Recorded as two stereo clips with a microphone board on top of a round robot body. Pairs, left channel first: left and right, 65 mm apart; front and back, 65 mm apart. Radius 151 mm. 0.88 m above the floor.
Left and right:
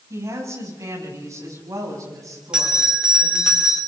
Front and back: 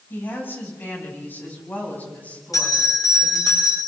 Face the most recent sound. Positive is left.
turn(degrees=-15)